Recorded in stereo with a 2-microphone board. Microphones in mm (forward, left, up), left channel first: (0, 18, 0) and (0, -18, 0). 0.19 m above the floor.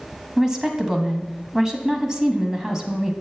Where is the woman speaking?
15° right (ahead or behind), 1.1 m.